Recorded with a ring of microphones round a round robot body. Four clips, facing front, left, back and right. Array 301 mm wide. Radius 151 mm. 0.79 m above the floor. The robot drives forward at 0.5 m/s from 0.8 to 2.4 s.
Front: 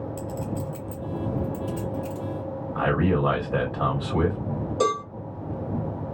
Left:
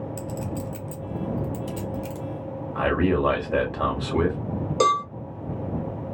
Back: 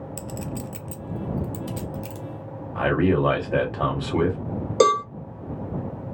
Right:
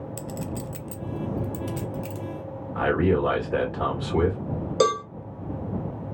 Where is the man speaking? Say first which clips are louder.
Even, back 3 dB; 140° left, 2 m.